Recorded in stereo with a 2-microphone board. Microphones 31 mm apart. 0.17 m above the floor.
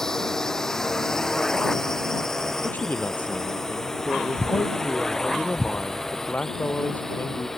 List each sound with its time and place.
0.0 s a drone: 15° left (ahead or behind)
2.6 s a man speaking: 60° left (ahead or behind)